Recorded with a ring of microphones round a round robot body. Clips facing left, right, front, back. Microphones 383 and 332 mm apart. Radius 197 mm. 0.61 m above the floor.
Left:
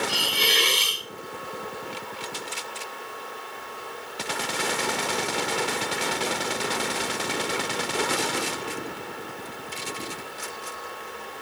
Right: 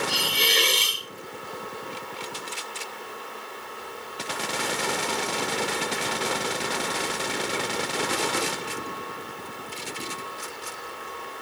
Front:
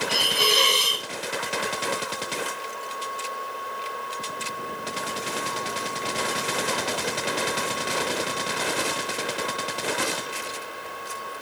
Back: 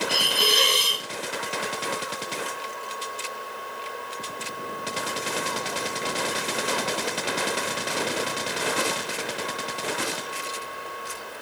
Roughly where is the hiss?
Right.